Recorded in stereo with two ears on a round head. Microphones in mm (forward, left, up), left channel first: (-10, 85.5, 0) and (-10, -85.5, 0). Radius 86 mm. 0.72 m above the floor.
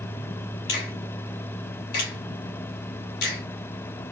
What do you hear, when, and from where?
0.7 s a finger snap: 60° left (ahead or behind), 2.5 m